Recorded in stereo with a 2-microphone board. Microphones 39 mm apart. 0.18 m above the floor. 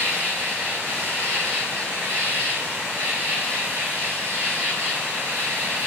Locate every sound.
0.0 s an insect: 75° right (ahead or behind), 6 m